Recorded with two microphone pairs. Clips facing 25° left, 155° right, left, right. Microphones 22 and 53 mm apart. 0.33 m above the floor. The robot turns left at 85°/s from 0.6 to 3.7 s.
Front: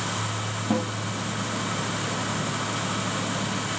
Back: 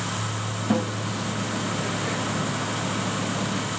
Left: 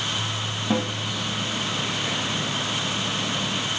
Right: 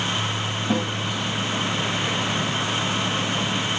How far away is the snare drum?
About 9.5 m.